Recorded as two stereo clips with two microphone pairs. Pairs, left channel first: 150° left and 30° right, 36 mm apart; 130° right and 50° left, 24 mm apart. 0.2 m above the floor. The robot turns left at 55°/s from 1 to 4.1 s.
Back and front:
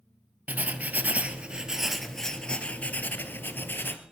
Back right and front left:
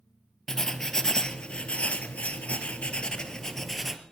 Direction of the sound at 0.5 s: 60° right.